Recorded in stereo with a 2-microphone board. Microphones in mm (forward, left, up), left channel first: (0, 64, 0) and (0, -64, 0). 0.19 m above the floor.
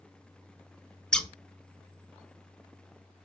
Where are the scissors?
5° left (ahead or behind), 0.5 m.